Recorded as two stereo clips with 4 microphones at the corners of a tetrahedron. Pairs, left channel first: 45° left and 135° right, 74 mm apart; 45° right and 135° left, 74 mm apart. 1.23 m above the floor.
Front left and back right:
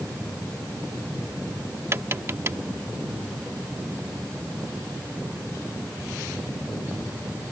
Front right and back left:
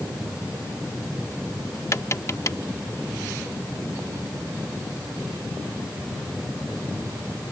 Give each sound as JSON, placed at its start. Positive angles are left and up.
{"t": 1.9, "sound": "tapping", "azimuth_deg": -85}